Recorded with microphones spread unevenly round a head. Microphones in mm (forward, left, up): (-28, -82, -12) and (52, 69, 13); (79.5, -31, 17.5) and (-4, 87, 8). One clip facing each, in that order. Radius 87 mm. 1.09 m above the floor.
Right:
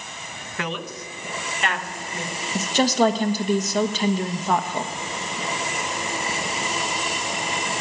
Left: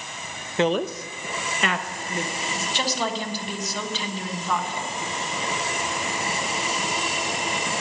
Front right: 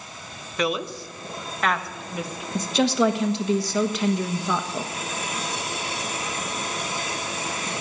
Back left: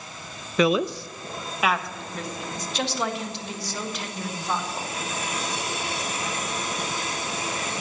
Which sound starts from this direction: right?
A woman speaking, at 2.5 s.